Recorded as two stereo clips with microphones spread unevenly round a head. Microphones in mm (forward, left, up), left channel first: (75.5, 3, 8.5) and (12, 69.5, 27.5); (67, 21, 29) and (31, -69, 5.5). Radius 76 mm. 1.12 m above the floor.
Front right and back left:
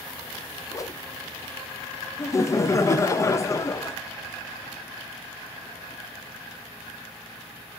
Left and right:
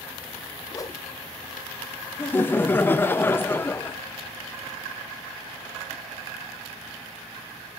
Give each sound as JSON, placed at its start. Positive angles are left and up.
{"t": 0.7, "sound": "a whoosh", "azimuth_deg": 10, "distance_m": 0.5}
{"t": 2.2, "sound": "laughter", "azimuth_deg": -10, "distance_m": 0.7}